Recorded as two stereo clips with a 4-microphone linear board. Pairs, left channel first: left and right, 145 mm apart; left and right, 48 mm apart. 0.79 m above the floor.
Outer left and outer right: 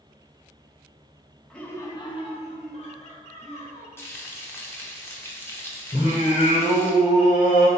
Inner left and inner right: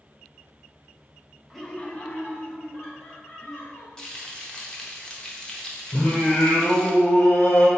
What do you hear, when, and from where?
1.5 s laughter: 5° left (ahead or behind), 0.5 m; by 3.9 s 55° left (ahead or behind), 1.6 m
4.0 s frying: 15° left (ahead or behind), 0.6 m
5.9 s singing: 60° left (ahead or behind), 1.5 m